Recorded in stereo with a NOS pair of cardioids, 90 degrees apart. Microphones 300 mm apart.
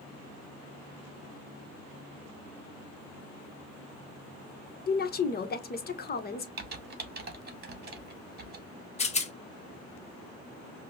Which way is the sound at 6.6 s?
35° right.